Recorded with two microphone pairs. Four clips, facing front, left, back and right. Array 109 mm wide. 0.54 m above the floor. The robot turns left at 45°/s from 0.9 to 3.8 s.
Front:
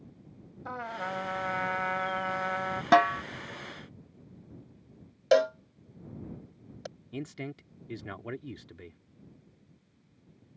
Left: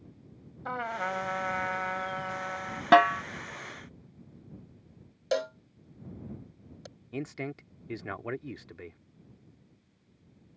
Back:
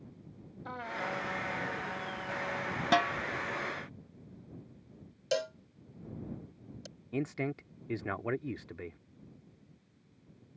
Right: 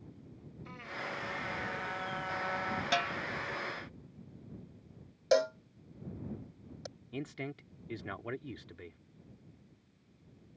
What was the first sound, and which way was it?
A trumpet, 70° left.